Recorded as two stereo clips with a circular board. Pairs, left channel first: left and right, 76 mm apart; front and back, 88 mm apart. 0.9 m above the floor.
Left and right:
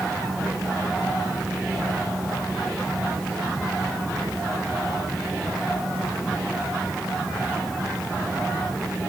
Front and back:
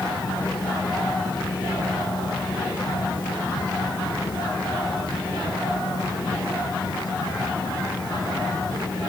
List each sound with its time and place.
Only background noise.